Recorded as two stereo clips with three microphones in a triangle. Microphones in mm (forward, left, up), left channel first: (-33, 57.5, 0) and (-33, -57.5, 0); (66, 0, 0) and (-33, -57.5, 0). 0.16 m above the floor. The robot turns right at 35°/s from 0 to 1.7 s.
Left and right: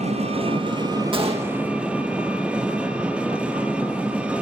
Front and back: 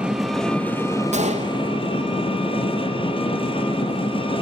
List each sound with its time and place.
0.0 s an engine running: 70° right, 3.5 m; by 4.4 s 10° right, 3.5 m
1.1 s a gunshot: 135° right, 3 m; by 1.6 s 115° right, 3 m